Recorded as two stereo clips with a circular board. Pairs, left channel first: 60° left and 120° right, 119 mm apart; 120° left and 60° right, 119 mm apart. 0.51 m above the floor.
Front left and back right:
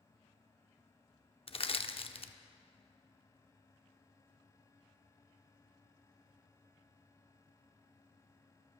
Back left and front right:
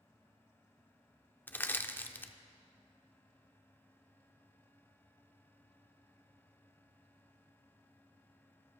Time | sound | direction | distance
1.5 | crushing | 50° left | 0.5 m